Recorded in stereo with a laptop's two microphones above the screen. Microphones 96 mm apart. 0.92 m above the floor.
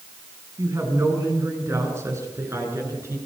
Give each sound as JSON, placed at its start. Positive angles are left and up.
{"t": 0.6, "sound": "a woman speaking", "side_deg": -30, "distance_m": 7.0}